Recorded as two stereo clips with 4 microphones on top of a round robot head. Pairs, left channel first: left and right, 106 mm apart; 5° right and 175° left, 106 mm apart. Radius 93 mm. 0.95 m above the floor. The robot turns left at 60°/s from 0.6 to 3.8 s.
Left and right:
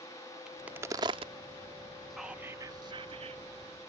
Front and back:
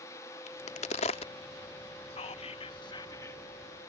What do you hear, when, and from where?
0.5 s a crack: 5° right; by 1.3 s 50° right
2.1 s whispering: straight ahead; by 3.4 s 80° right